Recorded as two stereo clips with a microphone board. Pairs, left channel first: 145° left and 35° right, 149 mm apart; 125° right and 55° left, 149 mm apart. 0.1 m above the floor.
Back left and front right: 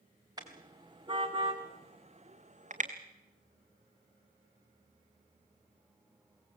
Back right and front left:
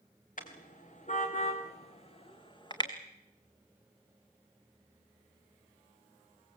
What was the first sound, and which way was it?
A car horn, 95° right.